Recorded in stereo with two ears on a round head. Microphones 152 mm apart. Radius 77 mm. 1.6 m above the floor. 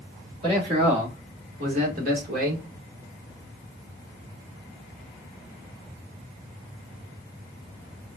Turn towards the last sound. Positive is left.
turn(degrees=-60)  # may be behind; listen again after turning